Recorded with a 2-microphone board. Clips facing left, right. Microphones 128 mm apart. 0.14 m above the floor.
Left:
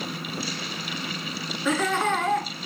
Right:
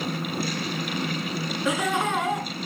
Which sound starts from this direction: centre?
Laughter, at 1.6 s.